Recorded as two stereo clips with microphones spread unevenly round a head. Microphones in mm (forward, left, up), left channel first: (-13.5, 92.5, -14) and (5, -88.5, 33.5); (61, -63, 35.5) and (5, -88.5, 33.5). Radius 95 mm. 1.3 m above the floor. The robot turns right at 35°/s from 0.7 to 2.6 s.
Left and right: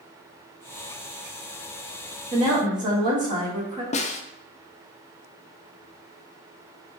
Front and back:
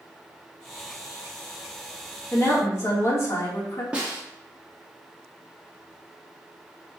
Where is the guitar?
No guitar in this recording.